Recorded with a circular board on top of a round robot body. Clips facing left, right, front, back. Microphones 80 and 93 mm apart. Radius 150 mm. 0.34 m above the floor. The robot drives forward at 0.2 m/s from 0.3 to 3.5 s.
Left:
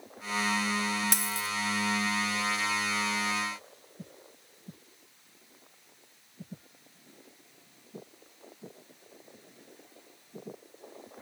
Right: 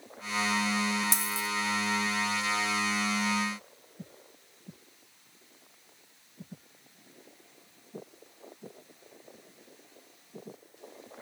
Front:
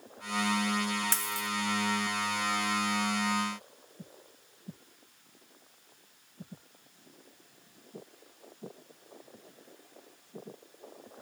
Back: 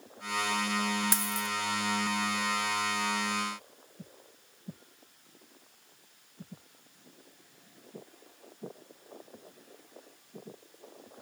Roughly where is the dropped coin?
Left.